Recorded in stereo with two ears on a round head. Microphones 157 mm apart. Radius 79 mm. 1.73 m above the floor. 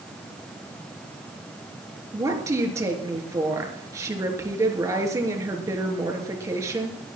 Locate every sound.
2.1 s a woman speaking: 20° right (ahead or behind), 3.5 m